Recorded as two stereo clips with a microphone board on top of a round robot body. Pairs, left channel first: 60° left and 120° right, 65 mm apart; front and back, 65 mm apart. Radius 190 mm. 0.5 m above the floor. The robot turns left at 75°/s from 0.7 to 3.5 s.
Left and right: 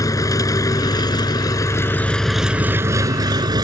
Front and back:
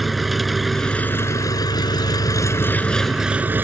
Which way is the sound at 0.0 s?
90° left.